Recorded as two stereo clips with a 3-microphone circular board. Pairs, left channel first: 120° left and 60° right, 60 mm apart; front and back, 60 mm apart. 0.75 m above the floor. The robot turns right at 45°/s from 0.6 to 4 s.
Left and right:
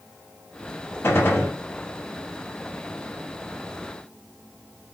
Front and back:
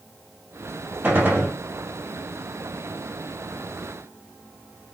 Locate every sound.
1.0 s a gunshot: 135° left, 0.8 m; by 1.5 s 155° left, 0.8 m